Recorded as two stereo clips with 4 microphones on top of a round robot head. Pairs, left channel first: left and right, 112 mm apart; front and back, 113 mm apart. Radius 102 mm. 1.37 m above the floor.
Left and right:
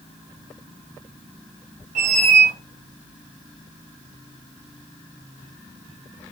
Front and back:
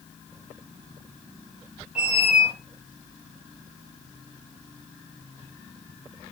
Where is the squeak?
95° right, 0.6 m.